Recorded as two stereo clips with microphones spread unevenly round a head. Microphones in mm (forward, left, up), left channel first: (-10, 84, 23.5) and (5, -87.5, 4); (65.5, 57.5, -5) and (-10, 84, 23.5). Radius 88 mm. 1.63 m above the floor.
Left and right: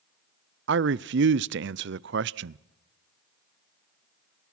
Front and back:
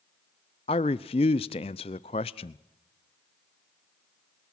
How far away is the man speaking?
About 0.5 m.